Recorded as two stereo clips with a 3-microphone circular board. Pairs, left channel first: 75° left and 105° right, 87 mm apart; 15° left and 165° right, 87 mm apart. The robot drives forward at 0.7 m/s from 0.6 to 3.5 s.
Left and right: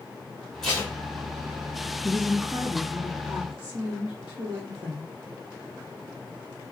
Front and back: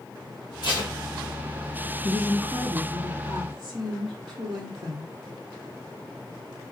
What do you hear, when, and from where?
0.6 s tape being pulled: 10° right, 2 m
2.0 s a woman speaking: straight behind, 1.5 m